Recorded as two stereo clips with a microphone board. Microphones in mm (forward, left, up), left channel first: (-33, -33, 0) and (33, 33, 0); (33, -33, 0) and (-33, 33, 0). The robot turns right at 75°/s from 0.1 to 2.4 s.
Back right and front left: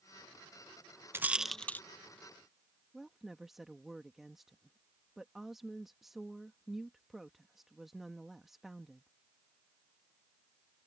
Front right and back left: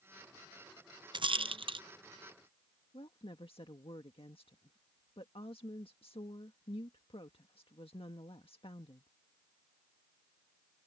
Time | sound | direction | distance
1.1 | a rattle | 110° left | ?
2.9 | a woman speaking | 40° right | ?